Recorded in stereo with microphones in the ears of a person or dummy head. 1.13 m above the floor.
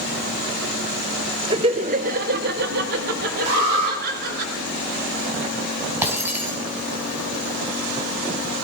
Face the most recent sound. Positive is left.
turn(degrees=-10)  # may be behind; listen again after turning